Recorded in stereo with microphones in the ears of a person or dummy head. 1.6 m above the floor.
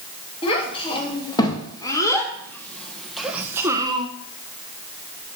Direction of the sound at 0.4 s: 25° left (ahead or behind).